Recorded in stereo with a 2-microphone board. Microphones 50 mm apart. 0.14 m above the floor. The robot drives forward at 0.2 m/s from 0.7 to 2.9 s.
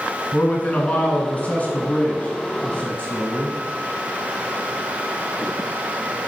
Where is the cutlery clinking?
I don't hear cutlery clinking.